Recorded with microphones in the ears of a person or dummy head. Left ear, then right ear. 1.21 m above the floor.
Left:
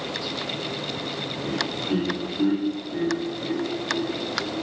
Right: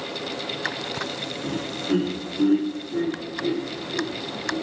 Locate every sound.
1.4 s laughter: 35° right (ahead or behind), 3 m; by 4.5 s 40° right (ahead or behind), 5 m